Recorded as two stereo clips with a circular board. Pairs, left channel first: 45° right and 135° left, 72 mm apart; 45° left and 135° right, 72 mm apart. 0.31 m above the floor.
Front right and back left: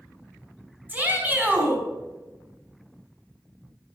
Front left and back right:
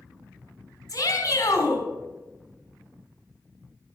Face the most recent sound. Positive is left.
turn(degrees=75)